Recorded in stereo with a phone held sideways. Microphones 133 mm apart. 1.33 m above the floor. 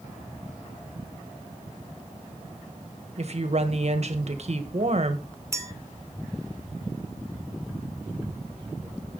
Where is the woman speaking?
55° right (ahead or behind), 1.4 m.